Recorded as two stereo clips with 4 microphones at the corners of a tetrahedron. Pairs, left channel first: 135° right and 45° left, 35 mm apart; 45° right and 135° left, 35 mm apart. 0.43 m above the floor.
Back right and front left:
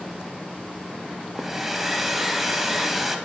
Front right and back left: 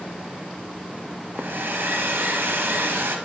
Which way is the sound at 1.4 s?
130° left.